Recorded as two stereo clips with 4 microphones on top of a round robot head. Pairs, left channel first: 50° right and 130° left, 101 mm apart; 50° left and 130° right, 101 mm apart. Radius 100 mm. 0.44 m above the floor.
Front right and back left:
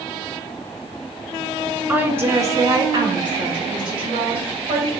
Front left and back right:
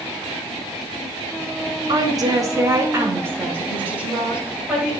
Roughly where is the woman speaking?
Behind.